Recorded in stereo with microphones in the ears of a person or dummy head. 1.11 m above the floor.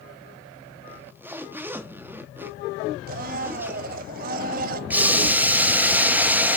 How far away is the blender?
About 0.6 m.